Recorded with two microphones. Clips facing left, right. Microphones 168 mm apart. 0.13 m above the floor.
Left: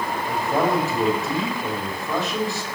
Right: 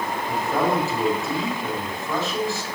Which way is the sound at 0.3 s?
15° left (ahead or behind).